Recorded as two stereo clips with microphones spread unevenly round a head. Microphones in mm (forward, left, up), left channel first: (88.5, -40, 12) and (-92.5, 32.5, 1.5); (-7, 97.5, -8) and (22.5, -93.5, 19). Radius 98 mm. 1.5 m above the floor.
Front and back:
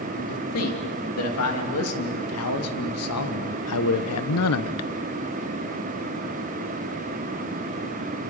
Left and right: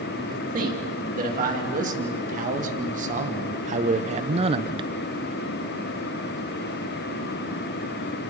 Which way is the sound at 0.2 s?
30° right.